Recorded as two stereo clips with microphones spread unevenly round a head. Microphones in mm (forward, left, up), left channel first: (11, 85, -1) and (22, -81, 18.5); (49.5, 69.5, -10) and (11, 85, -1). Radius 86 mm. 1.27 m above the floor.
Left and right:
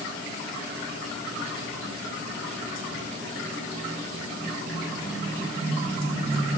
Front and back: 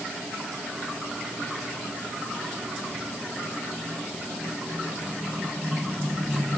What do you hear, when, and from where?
Only background noise.